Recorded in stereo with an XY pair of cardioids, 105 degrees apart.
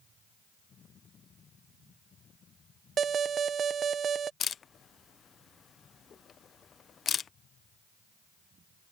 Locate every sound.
3.0 s an alarm: 50° right
4.4 s a camera shutter: 50° left